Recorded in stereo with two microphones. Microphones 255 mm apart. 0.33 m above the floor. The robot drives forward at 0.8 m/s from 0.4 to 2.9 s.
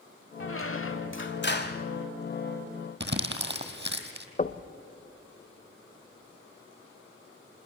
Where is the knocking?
35° left (ahead or behind), 0.6 m.